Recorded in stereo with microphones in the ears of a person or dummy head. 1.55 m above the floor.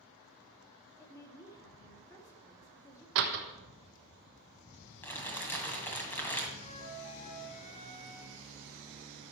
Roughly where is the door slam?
Right.